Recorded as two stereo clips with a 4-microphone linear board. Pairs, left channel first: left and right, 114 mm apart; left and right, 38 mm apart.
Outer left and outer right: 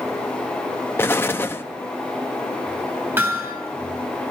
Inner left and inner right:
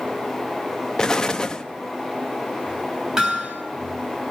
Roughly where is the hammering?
Right.